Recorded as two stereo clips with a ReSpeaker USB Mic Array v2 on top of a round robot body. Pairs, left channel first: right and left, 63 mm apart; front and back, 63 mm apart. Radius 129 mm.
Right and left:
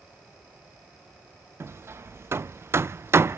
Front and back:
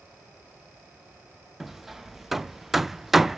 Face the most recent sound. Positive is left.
turn(degrees=95)